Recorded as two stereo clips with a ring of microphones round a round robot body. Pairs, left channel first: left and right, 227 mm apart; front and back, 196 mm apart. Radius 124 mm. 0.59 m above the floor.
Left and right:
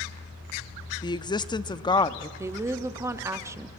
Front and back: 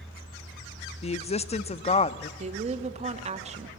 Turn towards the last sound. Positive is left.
turn(degrees=-160)